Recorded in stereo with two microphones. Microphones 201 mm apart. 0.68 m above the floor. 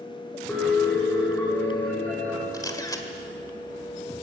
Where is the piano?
10° left (ahead or behind), 7 m.